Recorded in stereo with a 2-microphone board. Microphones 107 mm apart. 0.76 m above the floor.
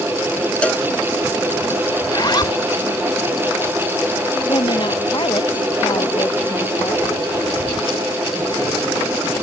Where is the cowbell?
10° left (ahead or behind).